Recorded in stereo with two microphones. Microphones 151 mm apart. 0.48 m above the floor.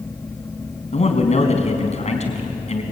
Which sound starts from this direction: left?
A man speaking, at 0.9 s.